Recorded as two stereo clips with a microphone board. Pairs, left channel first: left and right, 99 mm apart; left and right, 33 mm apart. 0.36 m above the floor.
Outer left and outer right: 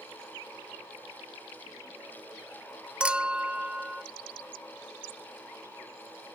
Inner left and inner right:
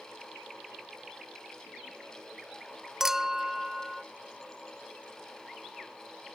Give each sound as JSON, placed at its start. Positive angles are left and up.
{"t": 3.0, "sound": "a clink", "side_deg": -10}